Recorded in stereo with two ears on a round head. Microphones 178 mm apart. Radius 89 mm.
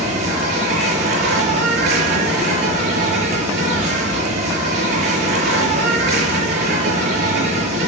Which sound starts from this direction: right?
An insect, at 0.0 s.